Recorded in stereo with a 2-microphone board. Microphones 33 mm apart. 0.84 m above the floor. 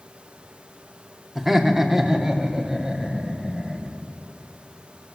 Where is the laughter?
10° right (ahead or behind), 2.5 m; by 4.0 s 25° right (ahead or behind), 6 m.